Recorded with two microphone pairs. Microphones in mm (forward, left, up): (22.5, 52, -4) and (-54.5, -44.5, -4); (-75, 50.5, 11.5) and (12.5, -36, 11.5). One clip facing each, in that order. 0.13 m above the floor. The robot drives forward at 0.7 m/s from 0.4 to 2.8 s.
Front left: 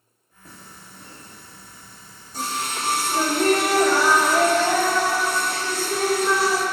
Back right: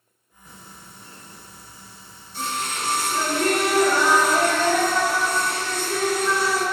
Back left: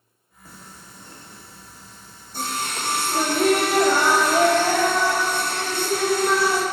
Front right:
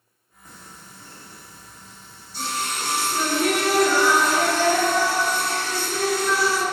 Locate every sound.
0.5 s singing: 55° left, 1.9 m; by 6.6 s 110° left, 1.6 m